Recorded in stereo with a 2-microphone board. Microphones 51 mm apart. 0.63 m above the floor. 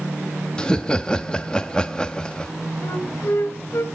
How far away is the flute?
About 1.7 m.